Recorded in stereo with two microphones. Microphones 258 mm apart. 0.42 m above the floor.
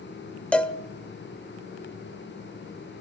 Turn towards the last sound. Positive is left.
turn(degrees=5)  # may be behind; listen again after turning